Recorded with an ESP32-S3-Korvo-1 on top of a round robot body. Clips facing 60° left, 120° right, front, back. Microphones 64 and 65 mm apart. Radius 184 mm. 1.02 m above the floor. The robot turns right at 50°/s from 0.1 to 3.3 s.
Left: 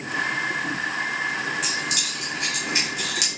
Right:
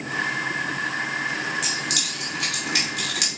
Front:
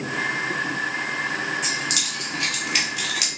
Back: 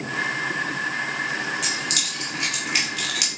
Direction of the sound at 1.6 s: 150° right.